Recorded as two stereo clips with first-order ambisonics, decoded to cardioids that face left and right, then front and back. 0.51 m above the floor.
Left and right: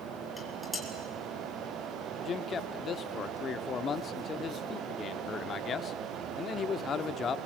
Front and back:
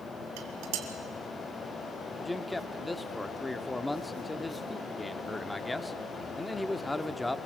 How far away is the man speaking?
About 0.8 m.